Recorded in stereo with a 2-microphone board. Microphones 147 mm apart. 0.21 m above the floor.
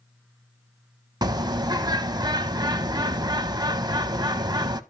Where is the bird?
30° right (ahead or behind), 0.6 m.